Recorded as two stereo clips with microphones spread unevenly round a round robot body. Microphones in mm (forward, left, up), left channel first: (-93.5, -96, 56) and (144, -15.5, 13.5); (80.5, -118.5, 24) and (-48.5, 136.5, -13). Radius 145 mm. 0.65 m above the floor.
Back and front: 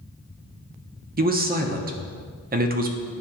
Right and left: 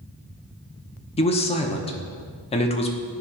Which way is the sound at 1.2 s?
5° left.